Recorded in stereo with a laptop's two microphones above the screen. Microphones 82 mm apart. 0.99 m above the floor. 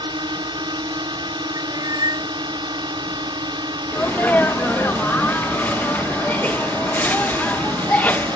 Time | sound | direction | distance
0.0 | a drone | 75° right (ahead or behind) | ?
1.6 | a cat meowing | 55° right (ahead or behind) | ?
3.9 | a sneeze | 20° left (ahead or behind) | ?